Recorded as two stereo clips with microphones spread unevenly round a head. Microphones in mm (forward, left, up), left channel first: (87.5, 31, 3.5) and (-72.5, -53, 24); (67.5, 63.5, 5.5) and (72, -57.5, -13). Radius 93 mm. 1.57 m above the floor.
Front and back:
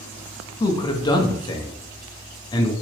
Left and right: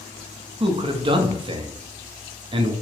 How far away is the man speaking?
About 0.6 m.